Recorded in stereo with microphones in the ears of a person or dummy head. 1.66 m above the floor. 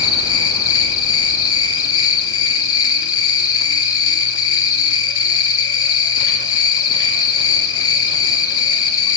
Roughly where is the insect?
Left.